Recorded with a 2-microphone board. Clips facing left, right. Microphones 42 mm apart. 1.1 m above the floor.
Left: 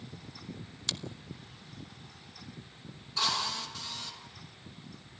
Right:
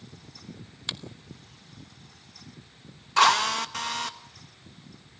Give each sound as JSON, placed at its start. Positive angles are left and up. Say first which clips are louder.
{"t": 0.9, "sound": "a finger snap", "louder": "right 2 dB", "side_deg": -20, "distance_m": 1.2}
{"t": 3.2, "sound": "a drill", "louder": "right 12 dB", "side_deg": -70, "distance_m": 1.4}